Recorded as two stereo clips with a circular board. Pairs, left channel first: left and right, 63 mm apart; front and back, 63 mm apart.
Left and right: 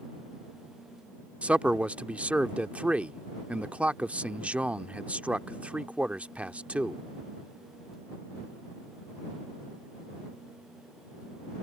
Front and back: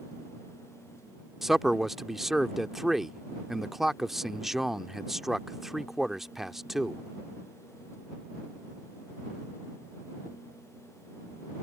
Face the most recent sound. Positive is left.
turn(degrees=-105)